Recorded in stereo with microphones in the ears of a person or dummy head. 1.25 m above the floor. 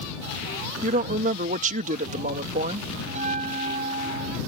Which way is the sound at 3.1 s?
30° right (ahead or behind).